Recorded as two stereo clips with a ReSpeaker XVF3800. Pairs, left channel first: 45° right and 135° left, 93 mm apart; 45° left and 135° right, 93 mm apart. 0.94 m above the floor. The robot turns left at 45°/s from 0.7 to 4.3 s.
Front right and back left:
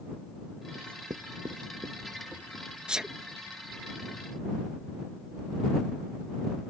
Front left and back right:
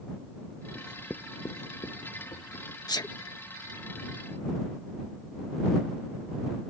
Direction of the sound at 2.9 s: 60° left.